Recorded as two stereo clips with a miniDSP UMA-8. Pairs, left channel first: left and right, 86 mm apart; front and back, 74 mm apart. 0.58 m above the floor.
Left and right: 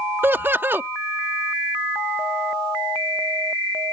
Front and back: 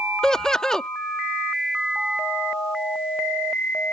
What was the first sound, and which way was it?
Laughter, 75° right.